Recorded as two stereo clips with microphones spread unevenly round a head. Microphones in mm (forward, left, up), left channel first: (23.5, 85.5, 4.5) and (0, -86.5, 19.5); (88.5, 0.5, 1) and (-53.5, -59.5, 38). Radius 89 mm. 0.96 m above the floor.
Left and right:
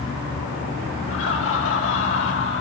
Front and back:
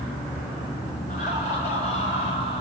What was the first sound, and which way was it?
Laughter, 75° left.